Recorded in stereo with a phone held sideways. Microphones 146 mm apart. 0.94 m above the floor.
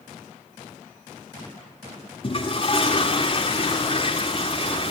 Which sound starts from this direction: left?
A toilet flushing, at 2.2 s.